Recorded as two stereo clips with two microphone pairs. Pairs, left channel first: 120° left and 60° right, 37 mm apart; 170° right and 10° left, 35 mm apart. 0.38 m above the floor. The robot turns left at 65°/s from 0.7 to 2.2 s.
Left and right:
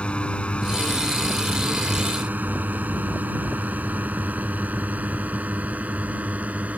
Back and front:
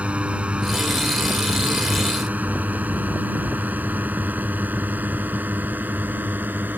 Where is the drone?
65° left; by 6.8 s 15° right.